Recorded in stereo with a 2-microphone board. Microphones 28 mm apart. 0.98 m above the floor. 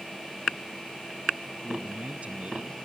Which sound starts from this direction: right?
A man speaking, at 1.6 s.